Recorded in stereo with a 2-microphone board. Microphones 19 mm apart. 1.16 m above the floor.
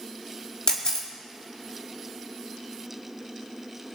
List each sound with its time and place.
0.7 s a camera shutter: 45° left (ahead or behind), 2.0 m